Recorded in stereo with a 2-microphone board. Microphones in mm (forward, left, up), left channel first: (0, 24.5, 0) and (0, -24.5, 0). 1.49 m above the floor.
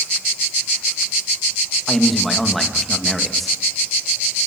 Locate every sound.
1.9 s a man speaking: centre (ahead or behind), 2 m